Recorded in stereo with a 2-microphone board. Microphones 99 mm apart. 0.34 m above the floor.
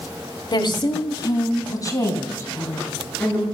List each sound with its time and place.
0.5 s a woman speaking: 55° left (ahead or behind), 2 m; by 3.5 s 20° left (ahead or behind), 5 m